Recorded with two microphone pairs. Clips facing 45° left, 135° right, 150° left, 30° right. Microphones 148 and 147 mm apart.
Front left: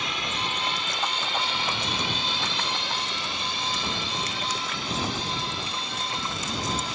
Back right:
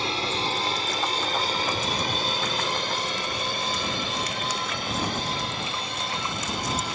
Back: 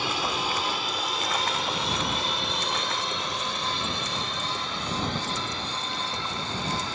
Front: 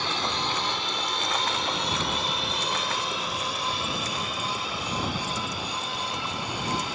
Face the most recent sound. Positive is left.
turn(degrees=-110)